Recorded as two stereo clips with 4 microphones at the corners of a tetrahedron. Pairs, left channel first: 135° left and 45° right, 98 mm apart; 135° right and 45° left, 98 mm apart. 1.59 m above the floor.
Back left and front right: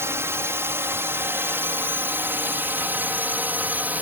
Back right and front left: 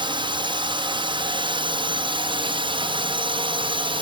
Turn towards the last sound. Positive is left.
turn(degrees=25)